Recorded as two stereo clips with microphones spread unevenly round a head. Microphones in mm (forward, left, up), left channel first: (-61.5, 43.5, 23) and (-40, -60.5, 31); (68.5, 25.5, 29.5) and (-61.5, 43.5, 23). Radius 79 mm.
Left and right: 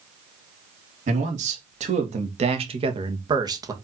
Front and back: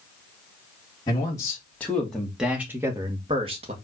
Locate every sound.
1.1 s a man speaking: 75° right, 2.5 m; by 3.7 s 140° right, 1.9 m